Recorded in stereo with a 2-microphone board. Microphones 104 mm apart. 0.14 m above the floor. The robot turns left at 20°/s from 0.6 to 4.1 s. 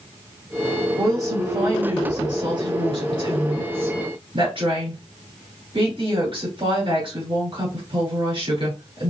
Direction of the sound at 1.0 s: 35° right.